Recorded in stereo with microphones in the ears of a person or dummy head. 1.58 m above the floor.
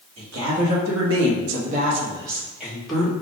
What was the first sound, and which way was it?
A woman speaking, 80° right.